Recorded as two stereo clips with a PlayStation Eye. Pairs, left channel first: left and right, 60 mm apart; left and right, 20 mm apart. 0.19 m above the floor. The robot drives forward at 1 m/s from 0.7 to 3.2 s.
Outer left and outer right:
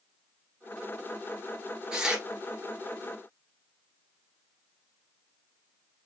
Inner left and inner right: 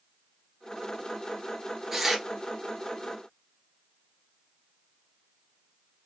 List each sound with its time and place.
1.9 s tearing paper: 10° right (ahead or behind), 2 m; by 2.2 s 15° right (ahead or behind), 1.8 m